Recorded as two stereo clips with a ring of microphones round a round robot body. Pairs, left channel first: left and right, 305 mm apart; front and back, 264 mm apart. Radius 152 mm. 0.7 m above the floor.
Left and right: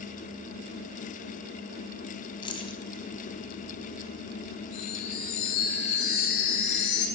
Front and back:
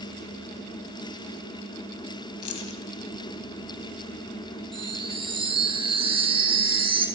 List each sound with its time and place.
2.4 s keys jangling: 15° left, 3 m
4.7 s a chime: 110° left, 5 m